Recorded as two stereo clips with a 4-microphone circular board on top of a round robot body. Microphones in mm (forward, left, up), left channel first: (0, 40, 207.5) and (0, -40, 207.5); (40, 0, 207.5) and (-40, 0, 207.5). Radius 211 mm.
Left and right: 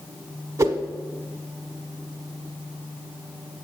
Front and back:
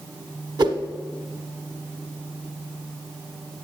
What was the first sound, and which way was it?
A whoosh, 145° right.